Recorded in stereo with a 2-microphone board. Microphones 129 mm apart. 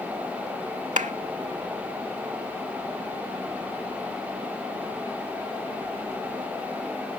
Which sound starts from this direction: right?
A clap, at 1.0 s.